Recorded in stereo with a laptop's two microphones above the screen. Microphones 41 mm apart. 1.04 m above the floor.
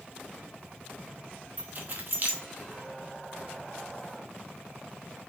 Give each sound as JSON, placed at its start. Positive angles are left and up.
{"t": 1.6, "sound": "keys jangling", "side_deg": -45, "distance_m": 0.8}